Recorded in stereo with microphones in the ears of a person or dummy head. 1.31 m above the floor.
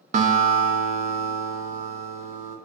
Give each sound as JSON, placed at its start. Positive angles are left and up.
{"t": 0.1, "sound": "a guitar", "side_deg": -45, "distance_m": 0.5}